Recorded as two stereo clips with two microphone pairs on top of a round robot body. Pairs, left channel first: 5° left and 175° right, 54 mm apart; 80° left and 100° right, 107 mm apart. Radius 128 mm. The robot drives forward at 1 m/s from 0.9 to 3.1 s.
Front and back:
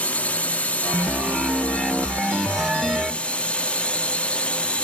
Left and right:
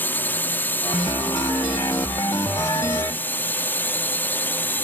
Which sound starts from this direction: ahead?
A drone, at 0.0 s.